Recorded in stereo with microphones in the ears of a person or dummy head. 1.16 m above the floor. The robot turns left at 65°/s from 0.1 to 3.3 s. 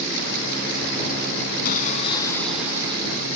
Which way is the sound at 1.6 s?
55° left.